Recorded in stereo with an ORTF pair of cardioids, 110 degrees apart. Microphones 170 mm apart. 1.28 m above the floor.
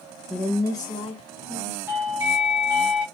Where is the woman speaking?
Straight ahead, 1.0 m; by 1.8 s 45° left, 2 m.